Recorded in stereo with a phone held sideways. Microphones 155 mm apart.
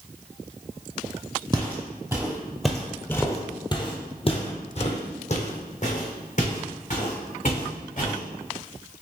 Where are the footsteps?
30° right (ahead or behind), 1.1 m; by 8.2 s 55° left (ahead or behind), 3 m.